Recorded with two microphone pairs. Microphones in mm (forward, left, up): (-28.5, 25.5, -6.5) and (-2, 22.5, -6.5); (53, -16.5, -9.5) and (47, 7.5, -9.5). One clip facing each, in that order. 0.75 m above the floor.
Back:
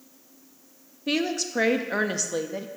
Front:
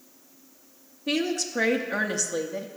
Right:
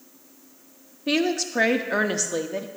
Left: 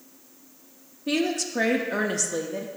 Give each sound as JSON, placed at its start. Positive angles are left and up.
{"t": 1.1, "sound": "a woman speaking", "azimuth_deg": -125, "distance_m": 0.6}